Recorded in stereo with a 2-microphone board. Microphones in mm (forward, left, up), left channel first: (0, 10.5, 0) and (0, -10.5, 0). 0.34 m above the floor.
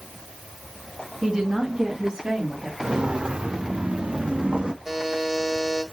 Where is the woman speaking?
40° right (ahead or behind), 3 m; by 2.7 s 50° right (ahead or behind), 4.5 m.